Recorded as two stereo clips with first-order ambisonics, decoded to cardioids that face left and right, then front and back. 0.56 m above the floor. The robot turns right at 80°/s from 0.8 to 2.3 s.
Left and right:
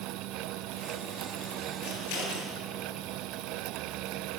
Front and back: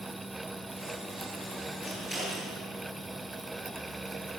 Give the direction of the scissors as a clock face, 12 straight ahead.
10 o'clock.